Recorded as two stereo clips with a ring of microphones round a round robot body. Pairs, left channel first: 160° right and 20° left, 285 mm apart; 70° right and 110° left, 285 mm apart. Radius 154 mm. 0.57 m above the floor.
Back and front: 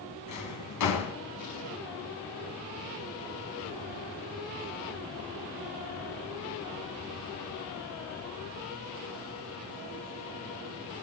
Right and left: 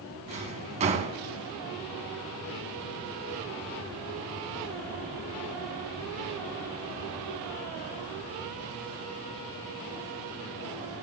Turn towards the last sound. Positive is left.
turn(degrees=180)